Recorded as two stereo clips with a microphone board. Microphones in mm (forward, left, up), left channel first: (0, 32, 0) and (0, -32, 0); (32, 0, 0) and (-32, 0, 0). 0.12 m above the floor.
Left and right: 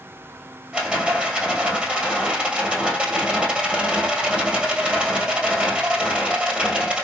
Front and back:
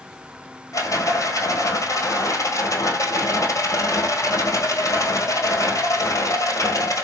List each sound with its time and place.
0.7 s a rattle: 20° right, 1.4 m